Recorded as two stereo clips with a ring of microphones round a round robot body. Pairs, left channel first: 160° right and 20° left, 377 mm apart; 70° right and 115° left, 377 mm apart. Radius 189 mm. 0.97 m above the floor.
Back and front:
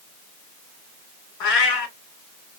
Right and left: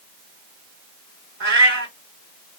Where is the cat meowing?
175° left, 1.7 m.